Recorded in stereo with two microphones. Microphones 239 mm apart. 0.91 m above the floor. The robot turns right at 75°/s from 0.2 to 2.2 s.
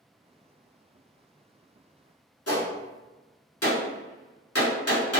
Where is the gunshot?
80° left, 0.9 m.